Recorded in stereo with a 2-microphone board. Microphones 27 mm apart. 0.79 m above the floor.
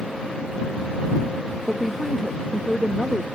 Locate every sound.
1.7 s a woman speaking: 5° right (ahead or behind)